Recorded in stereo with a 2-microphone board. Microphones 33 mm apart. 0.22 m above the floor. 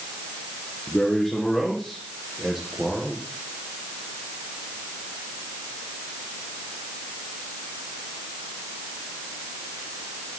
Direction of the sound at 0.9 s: 5° left (ahead or behind).